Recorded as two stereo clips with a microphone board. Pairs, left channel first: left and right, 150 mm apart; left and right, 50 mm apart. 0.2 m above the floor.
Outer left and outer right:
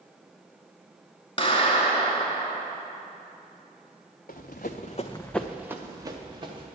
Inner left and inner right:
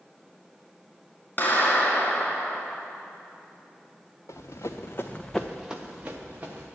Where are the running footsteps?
80° left, 1.0 m; by 6.7 s 35° right (ahead or behind), 1.8 m.